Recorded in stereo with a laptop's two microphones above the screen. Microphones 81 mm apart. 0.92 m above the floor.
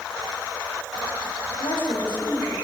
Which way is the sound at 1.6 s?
75° left (ahead or behind).